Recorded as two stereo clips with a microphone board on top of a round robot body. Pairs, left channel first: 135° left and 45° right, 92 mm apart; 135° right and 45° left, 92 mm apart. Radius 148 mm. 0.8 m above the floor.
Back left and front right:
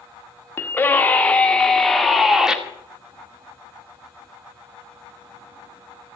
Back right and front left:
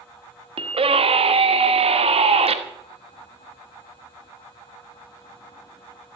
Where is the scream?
70° left, 2 m; by 2.6 s 40° left, 2.5 m.